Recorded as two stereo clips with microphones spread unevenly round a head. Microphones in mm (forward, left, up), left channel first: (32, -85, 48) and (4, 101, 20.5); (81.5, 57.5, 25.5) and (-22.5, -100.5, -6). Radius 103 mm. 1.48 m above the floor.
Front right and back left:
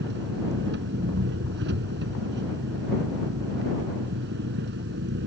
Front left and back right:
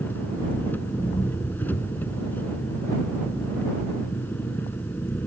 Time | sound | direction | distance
0.0 | an engine running | 135° left | ?